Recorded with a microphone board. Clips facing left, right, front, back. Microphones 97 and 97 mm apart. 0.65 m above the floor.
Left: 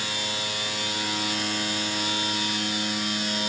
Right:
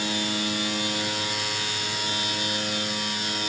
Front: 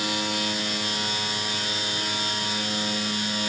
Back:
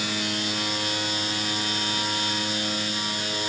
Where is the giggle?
I don't hear a giggle.